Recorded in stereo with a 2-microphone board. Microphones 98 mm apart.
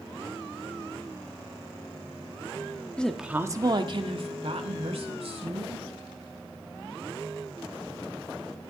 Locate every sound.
3.0 s a woman speaking: 10° left (ahead or behind), 1.0 m; by 5.8 s 75° right (ahead or behind), 3.5 m